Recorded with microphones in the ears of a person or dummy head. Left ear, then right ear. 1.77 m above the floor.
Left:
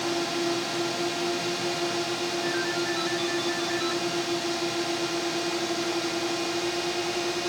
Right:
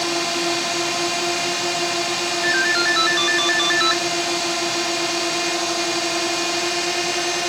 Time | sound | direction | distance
0.0 | a drone | 40° right (ahead or behind) | ?
2.4 | a ringtone | 55° right (ahead or behind) | ?